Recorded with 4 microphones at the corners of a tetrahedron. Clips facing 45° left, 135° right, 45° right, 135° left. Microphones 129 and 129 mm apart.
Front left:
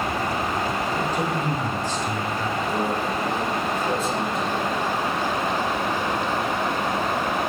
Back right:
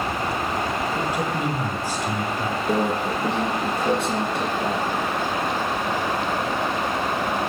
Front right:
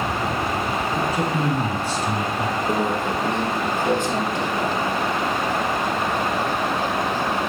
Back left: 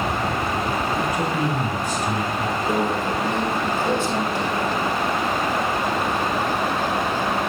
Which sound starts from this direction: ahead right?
A man speaking, at 0.9 s.